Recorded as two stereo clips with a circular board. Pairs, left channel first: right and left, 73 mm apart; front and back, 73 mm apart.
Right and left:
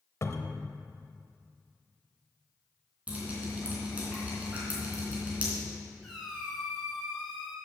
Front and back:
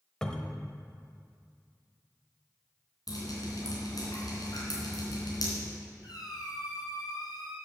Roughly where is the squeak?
Ahead.